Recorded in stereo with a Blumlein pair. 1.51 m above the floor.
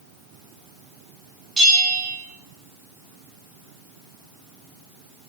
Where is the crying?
No crying in this recording.